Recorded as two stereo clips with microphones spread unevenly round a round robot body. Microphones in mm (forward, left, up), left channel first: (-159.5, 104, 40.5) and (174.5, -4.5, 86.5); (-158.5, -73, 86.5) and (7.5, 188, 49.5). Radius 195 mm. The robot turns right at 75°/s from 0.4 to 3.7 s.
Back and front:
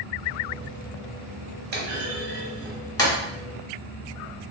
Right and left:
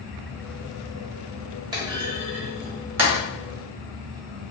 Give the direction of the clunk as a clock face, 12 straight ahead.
11 o'clock.